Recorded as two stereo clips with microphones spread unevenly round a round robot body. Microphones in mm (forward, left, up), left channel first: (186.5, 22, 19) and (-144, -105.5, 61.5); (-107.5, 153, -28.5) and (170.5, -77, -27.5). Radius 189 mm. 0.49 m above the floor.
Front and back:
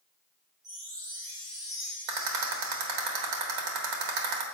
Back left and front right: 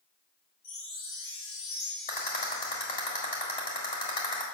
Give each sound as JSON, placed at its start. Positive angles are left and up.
{"t": 0.6, "sound": "a chime", "azimuth_deg": 120, "distance_m": 3.5}
{"t": 2.1, "sound": "a rattle", "azimuth_deg": -150, "distance_m": 1.4}